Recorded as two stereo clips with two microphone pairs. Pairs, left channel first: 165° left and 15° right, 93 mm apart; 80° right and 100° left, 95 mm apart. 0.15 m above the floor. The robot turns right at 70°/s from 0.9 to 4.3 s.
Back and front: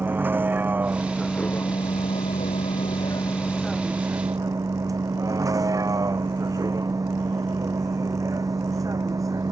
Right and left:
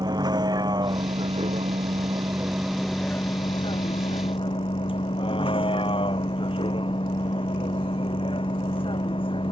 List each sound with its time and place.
0.0 s a vehicle: 55° left; by 9.5 s 65° right